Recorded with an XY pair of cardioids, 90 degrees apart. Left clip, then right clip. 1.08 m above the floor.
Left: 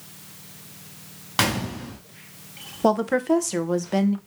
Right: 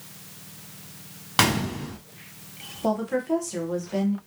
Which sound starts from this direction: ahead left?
A woman speaking, at 2.8 s.